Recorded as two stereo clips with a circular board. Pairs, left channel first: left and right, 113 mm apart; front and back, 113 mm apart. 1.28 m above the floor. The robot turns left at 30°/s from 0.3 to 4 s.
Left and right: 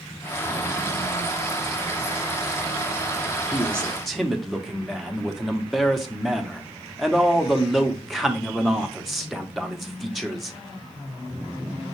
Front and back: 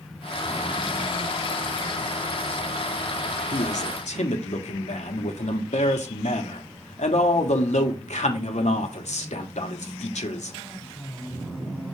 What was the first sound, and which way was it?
A man speaking, 15° left.